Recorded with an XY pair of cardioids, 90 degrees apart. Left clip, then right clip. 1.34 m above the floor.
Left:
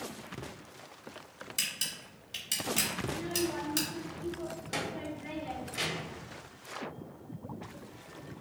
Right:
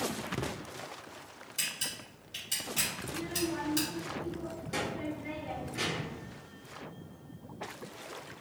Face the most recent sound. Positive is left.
turn(degrees=65)